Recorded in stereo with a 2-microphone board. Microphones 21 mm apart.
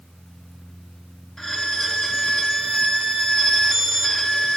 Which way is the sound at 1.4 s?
30° left (ahead or behind).